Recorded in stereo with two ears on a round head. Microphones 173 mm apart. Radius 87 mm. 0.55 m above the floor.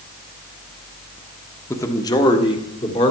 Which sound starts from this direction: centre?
A man speaking, at 1.7 s.